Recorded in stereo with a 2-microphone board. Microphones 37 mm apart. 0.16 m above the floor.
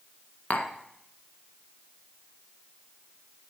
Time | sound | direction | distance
0.5 | tapping | 45° left (ahead or behind) | 1.2 m